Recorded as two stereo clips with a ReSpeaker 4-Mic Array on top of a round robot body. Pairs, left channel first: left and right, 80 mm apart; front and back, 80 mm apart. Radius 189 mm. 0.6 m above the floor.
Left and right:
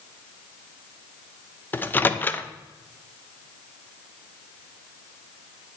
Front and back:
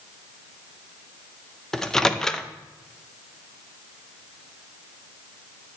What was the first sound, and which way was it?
A microwave, 75° left.